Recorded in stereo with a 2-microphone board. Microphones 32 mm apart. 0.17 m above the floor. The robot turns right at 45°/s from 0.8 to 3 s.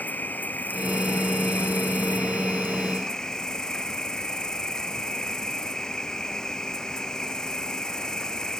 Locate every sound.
0.0 s an insect: 60° left; by 8.6 s 160° left